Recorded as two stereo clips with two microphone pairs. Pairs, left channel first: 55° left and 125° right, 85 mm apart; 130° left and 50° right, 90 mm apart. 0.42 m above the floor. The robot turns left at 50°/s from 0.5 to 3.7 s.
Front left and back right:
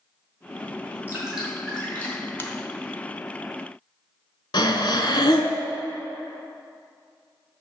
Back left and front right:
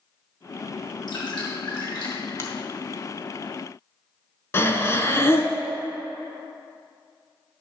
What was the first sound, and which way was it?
Dripping, 165° left.